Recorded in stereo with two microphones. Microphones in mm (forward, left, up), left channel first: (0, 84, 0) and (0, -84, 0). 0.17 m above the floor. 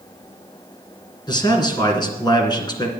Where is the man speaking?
25° left (ahead or behind), 2.5 m.